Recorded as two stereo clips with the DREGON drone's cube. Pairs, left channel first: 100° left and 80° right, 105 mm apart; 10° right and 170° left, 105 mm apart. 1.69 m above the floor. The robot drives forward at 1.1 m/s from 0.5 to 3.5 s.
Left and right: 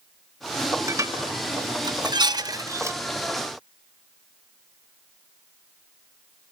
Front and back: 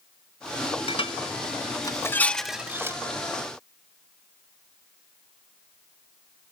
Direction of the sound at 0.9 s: 20° right.